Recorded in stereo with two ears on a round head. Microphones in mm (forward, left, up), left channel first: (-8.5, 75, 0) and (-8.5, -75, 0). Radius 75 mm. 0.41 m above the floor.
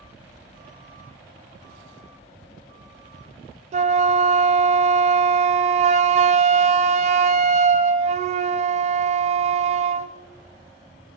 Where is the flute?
40° right (ahead or behind), 0.6 m.